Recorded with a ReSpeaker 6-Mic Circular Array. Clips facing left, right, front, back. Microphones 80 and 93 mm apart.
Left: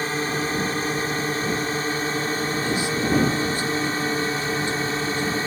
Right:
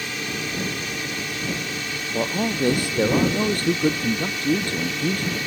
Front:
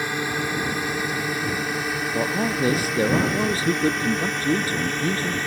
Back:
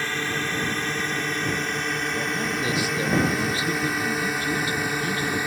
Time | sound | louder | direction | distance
0.0 | a drone | left 5 dB, front 2 dB | 70° left | ?
2.1 | a man speaking | right 1 dB, front 4 dB | 55° right | ?